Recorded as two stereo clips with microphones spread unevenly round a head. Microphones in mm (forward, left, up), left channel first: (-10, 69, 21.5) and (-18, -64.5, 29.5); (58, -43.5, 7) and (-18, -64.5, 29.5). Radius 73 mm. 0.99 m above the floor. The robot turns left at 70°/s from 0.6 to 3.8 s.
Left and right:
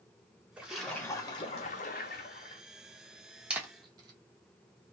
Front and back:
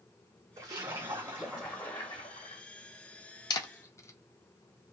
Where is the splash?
170° right, 1.0 m; by 2.6 s 50° left, 1.0 m.